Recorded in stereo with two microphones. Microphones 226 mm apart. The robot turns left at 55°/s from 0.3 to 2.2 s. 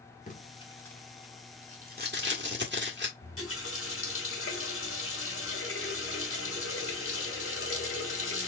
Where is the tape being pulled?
35° left (ahead or behind), 1.6 m; by 3.1 s 55° right (ahead or behind), 1.6 m.